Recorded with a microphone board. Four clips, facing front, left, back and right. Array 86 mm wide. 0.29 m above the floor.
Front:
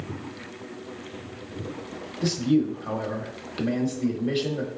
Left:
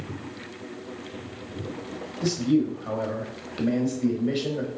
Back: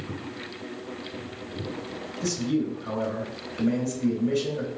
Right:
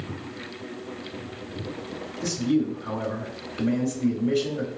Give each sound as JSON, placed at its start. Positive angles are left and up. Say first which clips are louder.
{"t": 2.2, "sound": "a man speaking", "louder": "left 1 dB, front 4 dB", "azimuth_deg": 35, "distance_m": 1.1}